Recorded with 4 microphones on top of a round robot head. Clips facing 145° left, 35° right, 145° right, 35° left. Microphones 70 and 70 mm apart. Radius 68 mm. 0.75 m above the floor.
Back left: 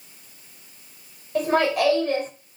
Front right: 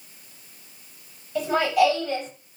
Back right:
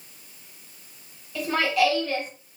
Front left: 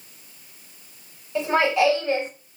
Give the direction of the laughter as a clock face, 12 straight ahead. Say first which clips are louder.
Even, front left 3 dB; 9 o'clock.